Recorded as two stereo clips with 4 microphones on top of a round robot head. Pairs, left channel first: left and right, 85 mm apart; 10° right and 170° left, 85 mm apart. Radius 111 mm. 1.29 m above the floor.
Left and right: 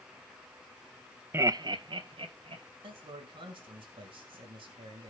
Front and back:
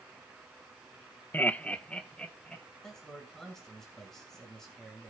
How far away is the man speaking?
About 1.9 m.